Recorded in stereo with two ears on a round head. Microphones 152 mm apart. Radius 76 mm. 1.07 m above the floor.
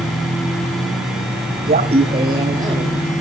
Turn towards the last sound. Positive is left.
turn(degrees=-20)  # may be behind; listen again after turning